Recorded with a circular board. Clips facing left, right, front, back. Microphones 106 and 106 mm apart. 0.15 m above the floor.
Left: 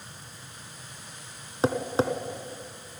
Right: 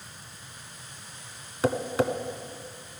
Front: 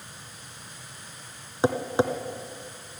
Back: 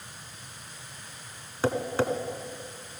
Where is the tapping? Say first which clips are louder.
Even, front 3 dB; 55° left, 1.0 m.